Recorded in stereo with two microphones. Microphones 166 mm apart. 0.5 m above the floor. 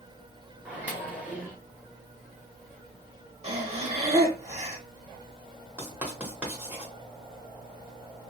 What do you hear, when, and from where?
0.7 s a microwave: 10° right (ahead or behind), 1.0 m
3.4 s breathing: 40° right (ahead or behind), 0.7 m
5.8 s writing: 10° right (ahead or behind), 1.3 m